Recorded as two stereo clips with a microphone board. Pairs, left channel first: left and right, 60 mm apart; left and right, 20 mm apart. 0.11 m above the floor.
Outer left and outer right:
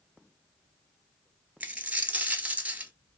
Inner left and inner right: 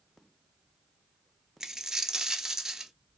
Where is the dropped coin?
25° right (ahead or behind), 0.5 m.